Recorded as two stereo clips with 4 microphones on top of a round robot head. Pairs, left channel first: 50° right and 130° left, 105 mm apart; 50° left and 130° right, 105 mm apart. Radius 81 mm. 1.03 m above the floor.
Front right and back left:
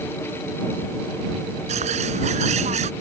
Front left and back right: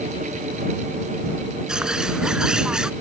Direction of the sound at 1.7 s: 150° left.